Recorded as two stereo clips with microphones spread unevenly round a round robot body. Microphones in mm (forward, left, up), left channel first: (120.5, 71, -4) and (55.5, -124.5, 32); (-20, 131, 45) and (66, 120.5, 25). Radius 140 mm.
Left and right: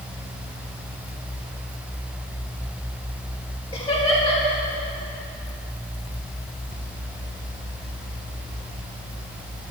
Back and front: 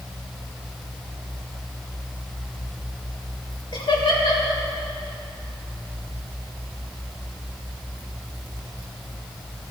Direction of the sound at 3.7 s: 150° left.